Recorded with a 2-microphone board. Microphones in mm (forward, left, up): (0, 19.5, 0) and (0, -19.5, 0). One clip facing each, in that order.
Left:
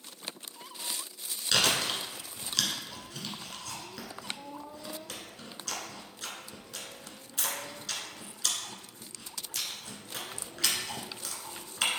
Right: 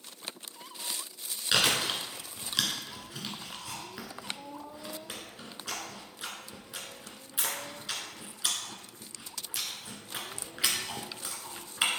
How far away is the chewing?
About 1.3 m.